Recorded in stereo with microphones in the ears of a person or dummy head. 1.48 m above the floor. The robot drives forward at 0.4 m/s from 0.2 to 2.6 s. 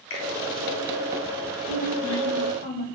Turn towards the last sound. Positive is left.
turn(degrees=70)  # may be behind; listen again after turning